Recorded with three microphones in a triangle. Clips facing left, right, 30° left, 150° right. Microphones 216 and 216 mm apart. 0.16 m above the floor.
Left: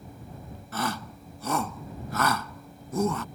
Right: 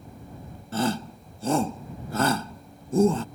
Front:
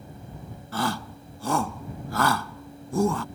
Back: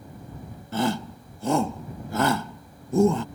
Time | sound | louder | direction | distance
0.7 | a shout | right 6 dB, back 4 dB | 110° right | ?